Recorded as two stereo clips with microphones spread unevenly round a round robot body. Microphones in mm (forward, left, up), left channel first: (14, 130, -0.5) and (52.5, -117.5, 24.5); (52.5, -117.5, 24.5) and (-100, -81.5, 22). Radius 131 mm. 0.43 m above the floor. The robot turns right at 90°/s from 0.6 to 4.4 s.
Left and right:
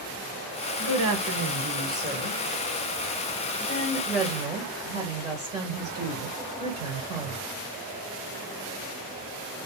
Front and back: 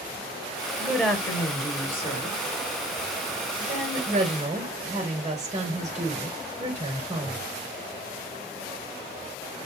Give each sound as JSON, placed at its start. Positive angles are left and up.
{"t": 0.8, "sound": "a woman speaking", "azimuth_deg": -115, "distance_m": 1.6}